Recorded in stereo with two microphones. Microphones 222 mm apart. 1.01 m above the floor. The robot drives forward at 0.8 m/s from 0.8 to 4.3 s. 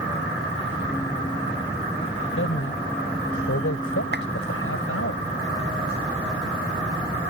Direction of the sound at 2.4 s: 70° left (ahead or behind).